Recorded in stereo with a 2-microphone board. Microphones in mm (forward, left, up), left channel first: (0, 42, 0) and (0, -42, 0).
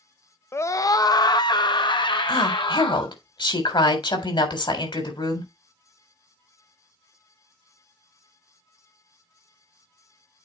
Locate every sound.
0.5 s a scream: 30° left (ahead or behind), 0.5 m; by 3.1 s 70° left (ahead or behind), 1.8 m
2.3 s a woman speaking: 70° left (ahead or behind), 3.5 m